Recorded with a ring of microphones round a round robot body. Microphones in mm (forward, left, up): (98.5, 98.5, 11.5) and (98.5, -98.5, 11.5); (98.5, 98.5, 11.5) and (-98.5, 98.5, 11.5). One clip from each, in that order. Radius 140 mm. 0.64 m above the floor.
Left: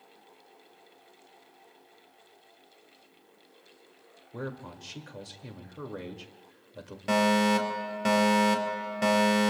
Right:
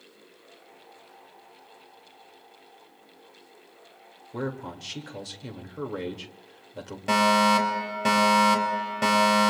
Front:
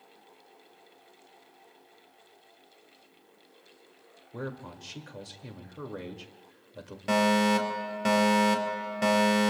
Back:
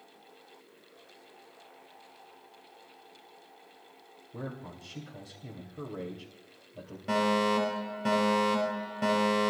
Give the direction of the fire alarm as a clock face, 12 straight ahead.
12 o'clock.